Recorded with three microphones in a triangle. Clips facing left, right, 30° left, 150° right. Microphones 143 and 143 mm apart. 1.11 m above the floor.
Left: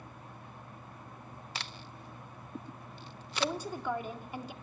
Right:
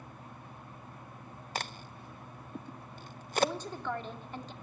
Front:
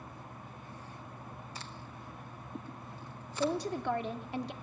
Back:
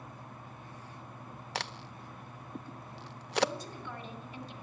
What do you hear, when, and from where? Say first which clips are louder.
1.6 s a crack: right 7 dB, back 5 dB; 135° right, 0.6 m
3.4 s a woman speaking: right 2 dB, front 3 dB; 10° left, 2 m